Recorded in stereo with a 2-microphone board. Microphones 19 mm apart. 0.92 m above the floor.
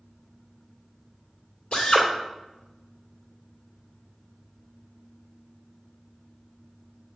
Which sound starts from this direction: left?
A drill, at 1.7 s.